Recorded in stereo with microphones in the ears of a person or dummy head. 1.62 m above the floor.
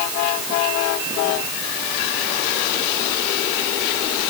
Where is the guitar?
I don't hear a guitar.